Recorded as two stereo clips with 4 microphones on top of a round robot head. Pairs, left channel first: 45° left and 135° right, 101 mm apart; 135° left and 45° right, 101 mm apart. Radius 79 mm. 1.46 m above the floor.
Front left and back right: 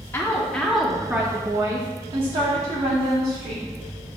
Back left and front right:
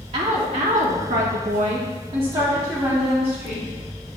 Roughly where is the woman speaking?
Ahead.